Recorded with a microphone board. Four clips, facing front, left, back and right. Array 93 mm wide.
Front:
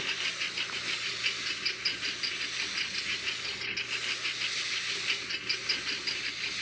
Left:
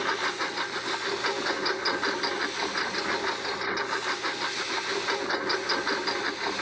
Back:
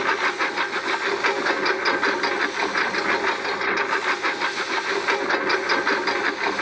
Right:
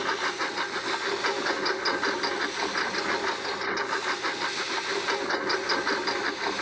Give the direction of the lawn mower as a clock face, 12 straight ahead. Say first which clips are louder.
Even, back 15 dB; 6 o'clock.